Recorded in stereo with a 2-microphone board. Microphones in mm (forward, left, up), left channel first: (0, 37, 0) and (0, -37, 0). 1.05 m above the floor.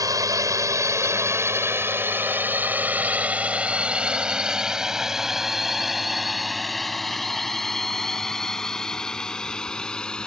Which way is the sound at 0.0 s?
50° right (ahead or behind).